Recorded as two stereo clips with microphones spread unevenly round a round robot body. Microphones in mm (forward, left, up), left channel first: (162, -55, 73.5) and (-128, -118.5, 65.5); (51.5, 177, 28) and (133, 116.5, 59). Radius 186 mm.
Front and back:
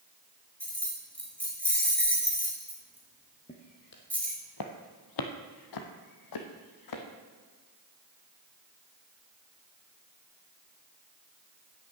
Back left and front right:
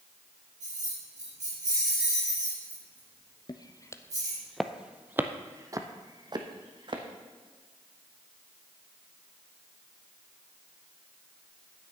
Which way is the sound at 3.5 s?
85° left.